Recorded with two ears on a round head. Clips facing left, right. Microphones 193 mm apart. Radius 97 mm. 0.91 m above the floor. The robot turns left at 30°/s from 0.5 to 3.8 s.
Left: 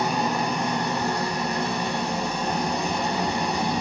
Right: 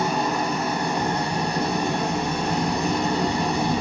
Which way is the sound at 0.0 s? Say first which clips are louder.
Right 1 dB; straight ahead.